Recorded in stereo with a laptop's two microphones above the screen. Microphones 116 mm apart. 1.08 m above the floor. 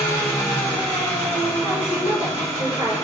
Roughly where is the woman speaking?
Right.